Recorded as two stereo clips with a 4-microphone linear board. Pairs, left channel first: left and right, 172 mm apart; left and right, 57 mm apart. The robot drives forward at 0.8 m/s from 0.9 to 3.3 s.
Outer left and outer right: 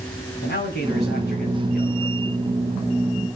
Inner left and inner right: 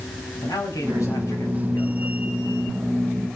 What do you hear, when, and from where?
0.4 s a man speaking: 80° left, 9.5 m; by 2.3 s 75° left (ahead or behind), 10 m